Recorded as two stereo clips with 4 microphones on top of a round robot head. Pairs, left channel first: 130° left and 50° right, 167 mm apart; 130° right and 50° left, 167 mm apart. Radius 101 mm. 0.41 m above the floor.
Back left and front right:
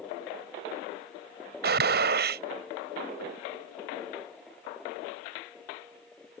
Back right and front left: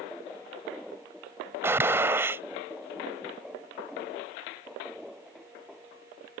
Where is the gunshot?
30° right.